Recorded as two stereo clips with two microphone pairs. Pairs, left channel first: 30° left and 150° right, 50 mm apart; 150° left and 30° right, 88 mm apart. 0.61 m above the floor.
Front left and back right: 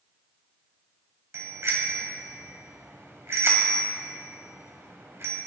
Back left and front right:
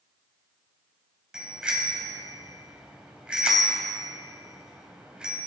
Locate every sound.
1.3 s a bicycle bell: 110° right, 2.5 m